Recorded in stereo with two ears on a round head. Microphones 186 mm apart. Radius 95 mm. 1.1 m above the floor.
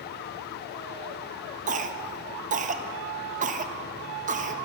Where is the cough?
40° right (ahead or behind), 1.2 m.